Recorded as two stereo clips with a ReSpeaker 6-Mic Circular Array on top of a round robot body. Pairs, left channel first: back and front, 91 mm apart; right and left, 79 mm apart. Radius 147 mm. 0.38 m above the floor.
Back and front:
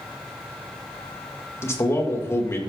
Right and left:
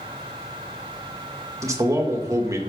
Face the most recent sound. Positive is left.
turn(degrees=125)